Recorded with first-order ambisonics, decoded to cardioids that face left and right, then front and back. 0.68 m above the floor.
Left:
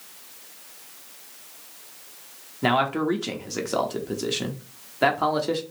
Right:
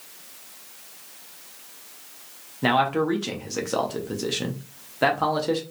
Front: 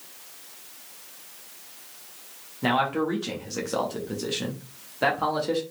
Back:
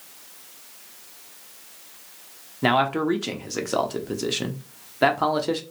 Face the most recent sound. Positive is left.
turn(degrees=175)